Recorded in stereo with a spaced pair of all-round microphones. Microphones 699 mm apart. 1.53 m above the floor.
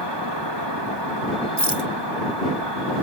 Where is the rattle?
35° right (ahead or behind).